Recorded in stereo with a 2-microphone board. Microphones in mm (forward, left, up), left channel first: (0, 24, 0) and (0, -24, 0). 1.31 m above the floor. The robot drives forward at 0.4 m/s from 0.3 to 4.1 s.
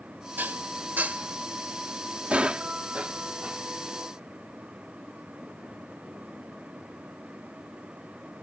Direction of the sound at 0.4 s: 40° right (ahead or behind).